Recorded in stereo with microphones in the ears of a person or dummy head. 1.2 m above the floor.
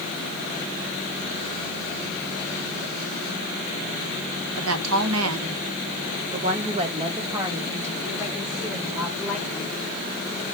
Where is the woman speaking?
70° right (ahead or behind), 1.2 m; by 9.9 s 5° right (ahead or behind), 3.5 m.